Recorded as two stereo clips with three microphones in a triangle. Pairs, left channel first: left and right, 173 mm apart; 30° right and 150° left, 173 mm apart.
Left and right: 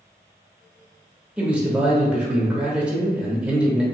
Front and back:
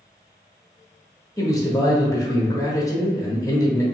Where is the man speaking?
20° right, 0.8 m.